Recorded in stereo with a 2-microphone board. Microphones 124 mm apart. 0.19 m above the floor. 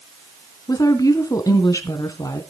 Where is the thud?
No thud in this recording.